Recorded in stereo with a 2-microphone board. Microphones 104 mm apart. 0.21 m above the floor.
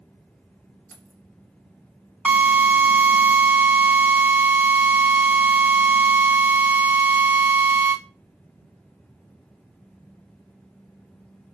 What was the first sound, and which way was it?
Keys jangling, 20° left (ahead or behind).